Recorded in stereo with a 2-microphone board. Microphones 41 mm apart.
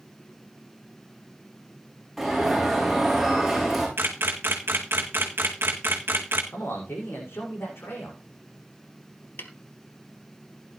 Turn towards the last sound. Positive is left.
turn(degrees=65)  # may be behind; listen again after turning